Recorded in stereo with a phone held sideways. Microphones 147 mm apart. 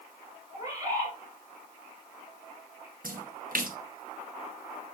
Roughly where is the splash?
Right.